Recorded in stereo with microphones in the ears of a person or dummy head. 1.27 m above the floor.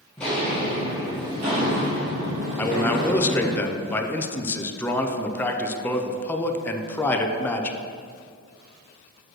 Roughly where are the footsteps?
Centre.